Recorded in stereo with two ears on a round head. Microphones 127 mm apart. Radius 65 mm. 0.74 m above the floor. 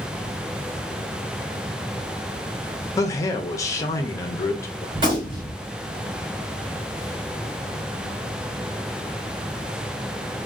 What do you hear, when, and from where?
3.0 s a man speaking: 20° left (ahead or behind), 0.5 m
5.0 s a gunshot: 35° right (ahead or behind), 2 m